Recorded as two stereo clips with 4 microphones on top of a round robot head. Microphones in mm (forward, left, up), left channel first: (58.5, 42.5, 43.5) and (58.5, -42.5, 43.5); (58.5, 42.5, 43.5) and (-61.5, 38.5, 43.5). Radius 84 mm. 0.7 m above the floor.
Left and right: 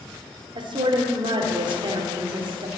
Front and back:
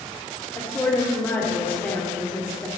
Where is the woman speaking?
75° right, 2.0 m.